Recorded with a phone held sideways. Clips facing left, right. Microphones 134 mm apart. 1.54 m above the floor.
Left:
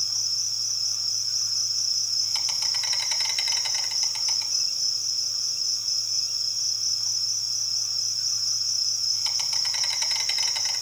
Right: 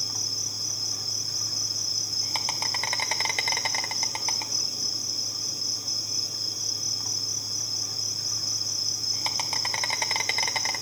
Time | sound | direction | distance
0.0 | an insect | 60° right (ahead or behind) | 1.0 m